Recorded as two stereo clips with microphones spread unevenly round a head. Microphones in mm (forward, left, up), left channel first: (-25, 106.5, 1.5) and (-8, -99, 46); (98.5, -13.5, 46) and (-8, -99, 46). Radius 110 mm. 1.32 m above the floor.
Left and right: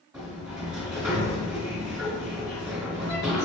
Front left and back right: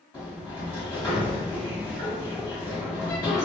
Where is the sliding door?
25° right, 1.6 m.